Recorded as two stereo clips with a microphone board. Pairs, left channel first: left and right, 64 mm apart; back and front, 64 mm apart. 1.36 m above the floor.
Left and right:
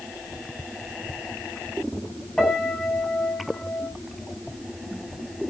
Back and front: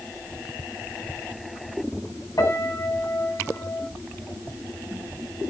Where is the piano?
170° left, 6.5 m.